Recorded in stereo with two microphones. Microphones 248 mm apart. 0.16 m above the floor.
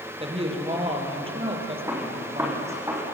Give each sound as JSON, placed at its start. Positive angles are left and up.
{"t": 0.2, "sound": "a woman speaking", "side_deg": -20, "distance_m": 4.5}
{"t": 1.9, "sound": "a gunshot", "side_deg": -10, "distance_m": 6.0}